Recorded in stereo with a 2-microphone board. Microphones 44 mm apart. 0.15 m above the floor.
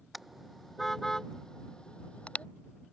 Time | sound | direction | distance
0.1 | a car horn | 5° right (ahead or behind) | ?